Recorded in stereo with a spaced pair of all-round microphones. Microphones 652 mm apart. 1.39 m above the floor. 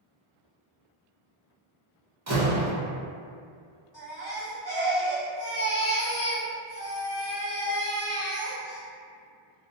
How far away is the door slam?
About 0.9 m.